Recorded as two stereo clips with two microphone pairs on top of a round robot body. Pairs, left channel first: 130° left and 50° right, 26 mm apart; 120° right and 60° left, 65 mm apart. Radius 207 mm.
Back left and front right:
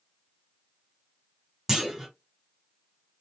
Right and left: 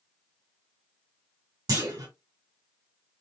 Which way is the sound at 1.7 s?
30° left.